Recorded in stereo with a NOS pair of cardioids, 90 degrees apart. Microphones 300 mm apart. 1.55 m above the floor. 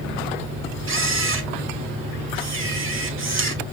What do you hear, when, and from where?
0.9 s a camera shutter: 40° right, 1.7 m